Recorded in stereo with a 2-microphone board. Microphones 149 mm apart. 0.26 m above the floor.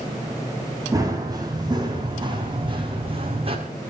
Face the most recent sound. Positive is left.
turn(degrees=-40)  # may be behind; listen again after turning